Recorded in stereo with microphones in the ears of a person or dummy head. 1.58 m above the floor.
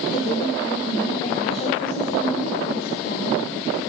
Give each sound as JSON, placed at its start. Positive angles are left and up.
{"t": 0.1, "sound": "a woman speaking", "side_deg": 30, "distance_m": 3.0}